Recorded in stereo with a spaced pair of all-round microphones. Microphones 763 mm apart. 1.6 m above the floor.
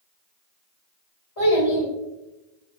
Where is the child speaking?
35° left (ahead or behind), 1.2 m.